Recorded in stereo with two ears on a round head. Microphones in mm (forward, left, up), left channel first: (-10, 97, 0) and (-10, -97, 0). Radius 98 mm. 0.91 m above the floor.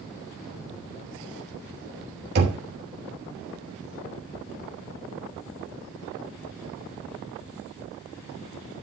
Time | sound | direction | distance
2.4 | knocking | 45° right (ahead or behind) | 3 m